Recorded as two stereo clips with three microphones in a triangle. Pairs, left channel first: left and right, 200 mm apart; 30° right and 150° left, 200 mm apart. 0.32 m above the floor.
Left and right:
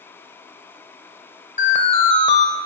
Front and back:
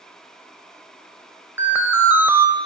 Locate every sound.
1.6 s an alarm: 75° left, 1.3 m